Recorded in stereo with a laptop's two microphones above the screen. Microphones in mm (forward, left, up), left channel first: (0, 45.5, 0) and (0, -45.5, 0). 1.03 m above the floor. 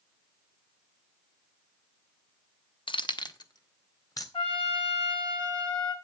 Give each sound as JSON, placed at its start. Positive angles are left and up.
{"t": 2.9, "sound": "keys jangling", "side_deg": 65, "distance_m": 0.6}
{"t": 4.3, "sound": "a trumpet", "side_deg": 70, "distance_m": 4.5}